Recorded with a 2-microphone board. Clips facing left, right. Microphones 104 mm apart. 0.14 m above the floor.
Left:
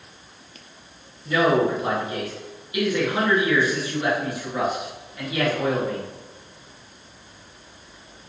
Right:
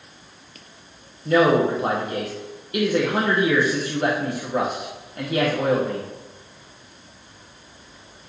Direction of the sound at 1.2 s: 55° right (ahead or behind).